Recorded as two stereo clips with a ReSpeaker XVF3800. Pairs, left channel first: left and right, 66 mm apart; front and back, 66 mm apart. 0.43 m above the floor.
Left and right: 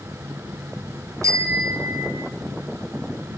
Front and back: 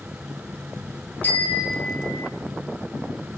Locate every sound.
1.2 s a bicycle bell: 60° right, 3 m; by 2.3 s 50° right, 2.5 m